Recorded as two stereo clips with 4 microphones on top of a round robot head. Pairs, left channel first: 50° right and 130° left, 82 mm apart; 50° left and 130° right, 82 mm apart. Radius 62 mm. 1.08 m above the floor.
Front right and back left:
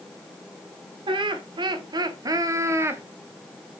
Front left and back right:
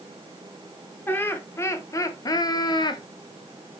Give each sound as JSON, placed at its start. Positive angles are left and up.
{"t": 1.1, "sound": "laughter", "azimuth_deg": 115, "distance_m": 1.4}